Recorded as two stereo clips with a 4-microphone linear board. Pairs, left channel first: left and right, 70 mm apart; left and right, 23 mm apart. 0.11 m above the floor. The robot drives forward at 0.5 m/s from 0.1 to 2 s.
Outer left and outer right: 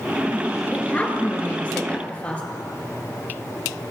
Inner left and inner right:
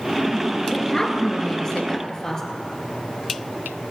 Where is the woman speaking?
25° left (ahead or behind), 1.9 m; by 2.4 s 20° left (ahead or behind), 2.5 m.